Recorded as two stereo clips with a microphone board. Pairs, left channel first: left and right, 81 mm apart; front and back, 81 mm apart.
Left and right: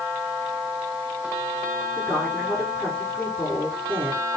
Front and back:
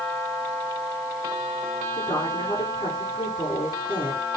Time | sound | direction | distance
2.0 | a woman speaking | 20° left | 7.5 m